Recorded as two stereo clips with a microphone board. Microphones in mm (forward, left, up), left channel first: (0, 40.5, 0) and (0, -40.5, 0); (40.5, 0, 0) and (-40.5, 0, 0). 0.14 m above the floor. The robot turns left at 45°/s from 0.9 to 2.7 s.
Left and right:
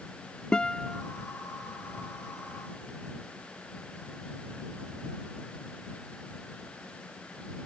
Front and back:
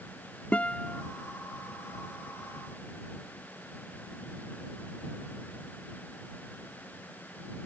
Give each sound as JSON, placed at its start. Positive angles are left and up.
{"t": 0.5, "sound": "a guitar", "azimuth_deg": 35}